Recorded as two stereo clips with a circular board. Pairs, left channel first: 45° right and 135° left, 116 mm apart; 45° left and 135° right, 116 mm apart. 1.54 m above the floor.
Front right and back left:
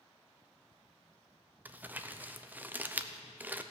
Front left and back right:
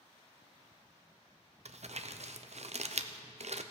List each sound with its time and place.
1.6 s crumpling: 150° right, 0.6 m